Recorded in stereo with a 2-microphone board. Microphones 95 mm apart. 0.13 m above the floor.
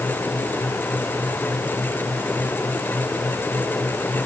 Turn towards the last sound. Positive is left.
No sound to turn to.